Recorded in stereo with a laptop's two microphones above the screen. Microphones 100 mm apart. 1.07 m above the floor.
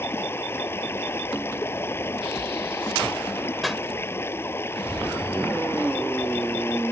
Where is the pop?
Centre (ahead or behind).